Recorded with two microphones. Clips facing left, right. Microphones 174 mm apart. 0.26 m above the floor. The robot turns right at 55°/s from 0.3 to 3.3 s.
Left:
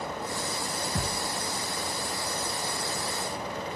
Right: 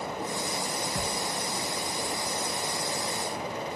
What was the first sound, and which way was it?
A thud, 20° left (ahead or behind).